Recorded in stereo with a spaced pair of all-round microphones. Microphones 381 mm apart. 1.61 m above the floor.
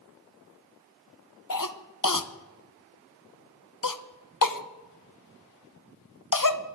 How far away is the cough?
About 0.9 m.